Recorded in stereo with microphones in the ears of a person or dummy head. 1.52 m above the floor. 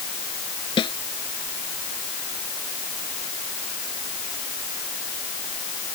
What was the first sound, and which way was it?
A snare drum, 25° left (ahead or behind).